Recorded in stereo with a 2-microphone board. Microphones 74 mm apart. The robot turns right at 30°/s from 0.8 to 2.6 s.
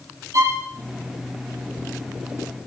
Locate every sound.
0.3 s a violin: 45° right (ahead or behind), 7 m